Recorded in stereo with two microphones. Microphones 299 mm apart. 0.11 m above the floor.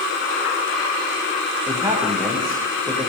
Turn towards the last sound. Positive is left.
turn(degrees=-10)  # may be behind; listen again after turning